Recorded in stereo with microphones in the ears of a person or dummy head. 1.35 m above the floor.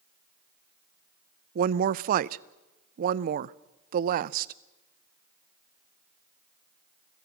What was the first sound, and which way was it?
A woman speaking, 45° right (ahead or behind).